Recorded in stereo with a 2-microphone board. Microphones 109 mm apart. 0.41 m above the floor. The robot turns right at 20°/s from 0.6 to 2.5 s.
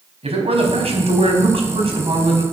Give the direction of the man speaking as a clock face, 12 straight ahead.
3 o'clock.